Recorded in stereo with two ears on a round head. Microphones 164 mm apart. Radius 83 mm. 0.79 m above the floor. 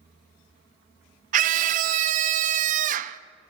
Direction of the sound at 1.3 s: 45° right (ahead or behind).